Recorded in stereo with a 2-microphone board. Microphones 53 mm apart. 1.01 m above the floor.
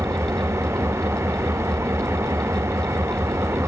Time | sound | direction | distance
0.0 | an engine running | 60° right (ahead or behind) | 1.0 m